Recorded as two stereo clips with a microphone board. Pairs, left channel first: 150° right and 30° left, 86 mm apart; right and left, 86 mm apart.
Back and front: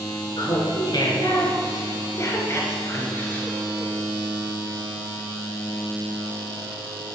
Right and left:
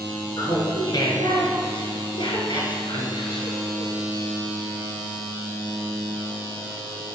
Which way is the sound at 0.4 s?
130° right.